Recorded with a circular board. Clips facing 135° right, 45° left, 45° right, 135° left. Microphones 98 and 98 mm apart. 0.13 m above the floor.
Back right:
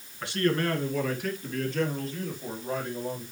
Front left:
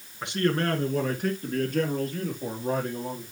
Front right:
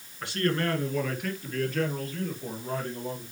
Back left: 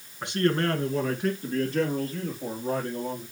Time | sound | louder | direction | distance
0.2 | a man speaking | front left 1 dB, back left 3 dB | 90° left | 1.6 m